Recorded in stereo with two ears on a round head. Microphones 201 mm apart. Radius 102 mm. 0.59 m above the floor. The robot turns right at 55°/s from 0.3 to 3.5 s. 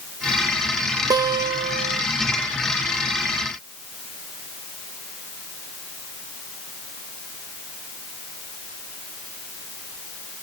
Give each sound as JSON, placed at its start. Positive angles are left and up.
{"t": 1.1, "sound": "a guitar", "side_deg": -20, "distance_m": 1.1}